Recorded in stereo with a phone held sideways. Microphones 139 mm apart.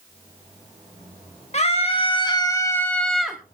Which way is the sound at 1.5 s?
50° left (ahead or behind).